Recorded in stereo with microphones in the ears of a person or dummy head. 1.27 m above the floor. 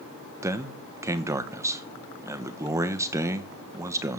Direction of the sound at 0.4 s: 15° right (ahead or behind).